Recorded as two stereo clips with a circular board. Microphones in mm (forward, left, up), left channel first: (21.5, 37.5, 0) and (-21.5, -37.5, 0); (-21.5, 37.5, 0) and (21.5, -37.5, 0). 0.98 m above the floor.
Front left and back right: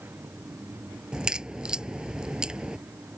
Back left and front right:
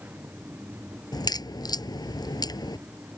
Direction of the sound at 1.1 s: 160° left.